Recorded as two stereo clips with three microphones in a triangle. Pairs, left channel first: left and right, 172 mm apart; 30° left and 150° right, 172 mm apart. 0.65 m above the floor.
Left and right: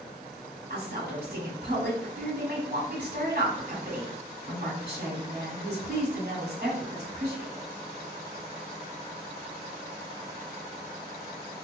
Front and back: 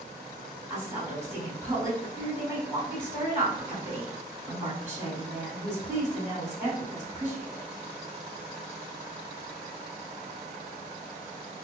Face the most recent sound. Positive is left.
turn(degrees=-75)